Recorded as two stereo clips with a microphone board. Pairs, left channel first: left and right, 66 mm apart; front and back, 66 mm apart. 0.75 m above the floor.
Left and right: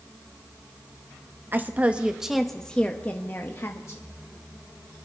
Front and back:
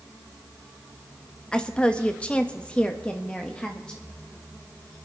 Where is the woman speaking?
65° right, 0.9 m; by 4.0 s 70° left, 1.1 m.